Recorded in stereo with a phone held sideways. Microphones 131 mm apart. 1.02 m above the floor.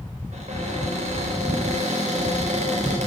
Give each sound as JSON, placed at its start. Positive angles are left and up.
{"t": 0.3, "sound": "a cupboard door", "side_deg": -60, "distance_m": 4.0}